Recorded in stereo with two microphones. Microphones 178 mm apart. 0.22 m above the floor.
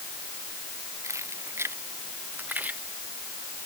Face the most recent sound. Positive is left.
turn(degrees=-10)  # may be behind; listen again after turning